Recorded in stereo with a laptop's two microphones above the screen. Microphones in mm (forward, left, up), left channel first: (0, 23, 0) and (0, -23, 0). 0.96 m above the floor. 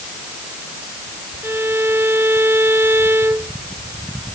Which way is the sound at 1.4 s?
70° right (ahead or behind).